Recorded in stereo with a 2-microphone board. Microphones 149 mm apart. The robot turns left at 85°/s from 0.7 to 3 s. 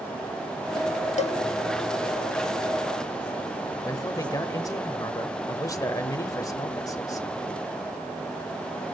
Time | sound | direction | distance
1.2 | a cowbell | 50° left (ahead or behind) | 0.7 m
3.9 | a man speaking | 20° left (ahead or behind) | 1.1 m